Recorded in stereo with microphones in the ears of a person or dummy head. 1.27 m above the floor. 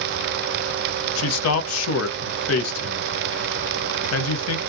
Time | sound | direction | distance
1.2 | a man speaking | 80° left | 0.6 m